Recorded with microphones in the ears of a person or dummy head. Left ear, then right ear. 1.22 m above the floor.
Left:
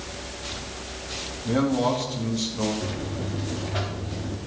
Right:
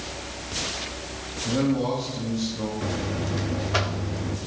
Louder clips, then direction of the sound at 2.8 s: Right 3 dB; 45° right (ahead or behind).